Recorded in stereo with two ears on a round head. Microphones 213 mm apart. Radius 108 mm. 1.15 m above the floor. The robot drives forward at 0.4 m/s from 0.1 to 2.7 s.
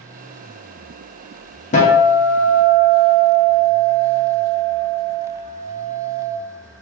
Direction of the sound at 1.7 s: 30° left (ahead or behind).